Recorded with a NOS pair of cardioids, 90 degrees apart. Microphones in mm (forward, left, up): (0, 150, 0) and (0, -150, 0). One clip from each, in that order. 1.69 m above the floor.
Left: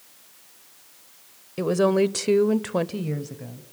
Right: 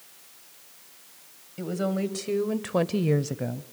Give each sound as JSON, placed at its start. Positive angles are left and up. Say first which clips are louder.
{"t": 1.6, "sound": "a woman speaking", "louder": "left 9 dB", "azimuth_deg": 65, "distance_m": 1.2}